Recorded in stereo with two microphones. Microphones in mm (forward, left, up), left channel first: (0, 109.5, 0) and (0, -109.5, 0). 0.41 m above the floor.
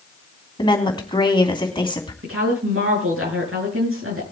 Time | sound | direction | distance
0.6 | a woman speaking | 20° left (ahead or behind) | 3 m
2.2 | a woman speaking | 80° right | 6 m